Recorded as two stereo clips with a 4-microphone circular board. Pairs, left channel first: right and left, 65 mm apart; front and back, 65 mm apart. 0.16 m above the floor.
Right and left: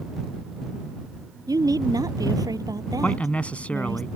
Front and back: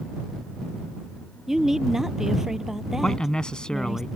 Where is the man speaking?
60° right.